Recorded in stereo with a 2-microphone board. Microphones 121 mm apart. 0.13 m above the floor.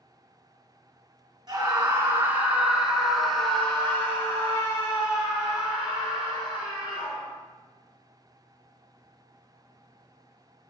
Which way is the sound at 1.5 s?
35° right (ahead or behind).